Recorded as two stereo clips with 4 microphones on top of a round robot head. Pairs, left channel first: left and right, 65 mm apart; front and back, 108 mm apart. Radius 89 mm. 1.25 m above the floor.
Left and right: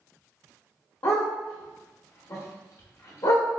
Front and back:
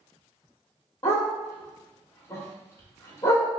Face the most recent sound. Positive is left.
turn(degrees=60)